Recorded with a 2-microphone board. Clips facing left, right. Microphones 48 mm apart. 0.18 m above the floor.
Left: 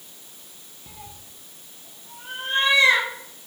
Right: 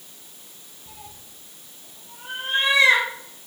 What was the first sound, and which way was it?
A cat meowing, 40° left (ahead or behind).